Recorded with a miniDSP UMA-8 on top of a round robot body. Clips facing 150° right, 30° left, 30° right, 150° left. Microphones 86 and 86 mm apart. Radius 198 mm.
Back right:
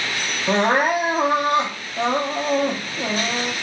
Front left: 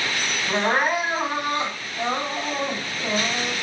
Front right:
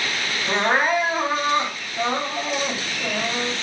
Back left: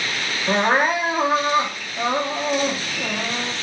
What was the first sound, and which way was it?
Crying, 130° right.